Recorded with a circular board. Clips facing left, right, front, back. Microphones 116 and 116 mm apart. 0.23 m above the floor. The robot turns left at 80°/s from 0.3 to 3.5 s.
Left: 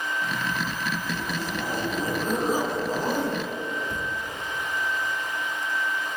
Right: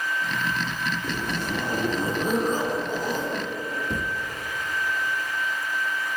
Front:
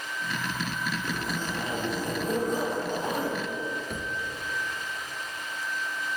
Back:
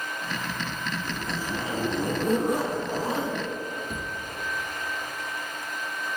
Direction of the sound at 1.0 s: 70° right.